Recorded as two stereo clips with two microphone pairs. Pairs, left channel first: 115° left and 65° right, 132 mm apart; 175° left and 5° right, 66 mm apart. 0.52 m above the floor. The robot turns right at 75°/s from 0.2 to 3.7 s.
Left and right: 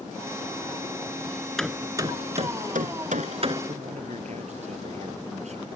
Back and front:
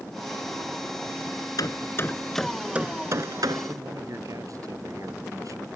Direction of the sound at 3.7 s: 35° right.